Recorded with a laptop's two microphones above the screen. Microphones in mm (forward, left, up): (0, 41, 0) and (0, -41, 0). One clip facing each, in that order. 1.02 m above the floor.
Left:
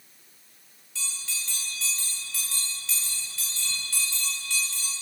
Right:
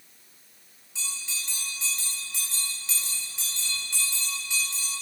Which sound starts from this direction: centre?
A bell, at 0.9 s.